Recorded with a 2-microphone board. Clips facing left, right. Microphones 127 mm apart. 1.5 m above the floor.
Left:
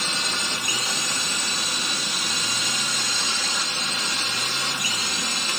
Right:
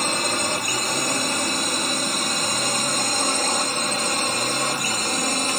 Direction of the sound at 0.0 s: 50° right (ahead or behind).